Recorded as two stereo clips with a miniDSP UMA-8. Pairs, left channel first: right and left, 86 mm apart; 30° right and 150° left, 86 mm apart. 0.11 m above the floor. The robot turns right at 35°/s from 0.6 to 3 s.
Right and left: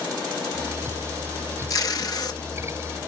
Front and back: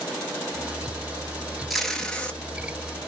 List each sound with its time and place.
1.7 s tape being pulled: 120° right, 0.6 m; by 2.4 s 95° right, 0.6 m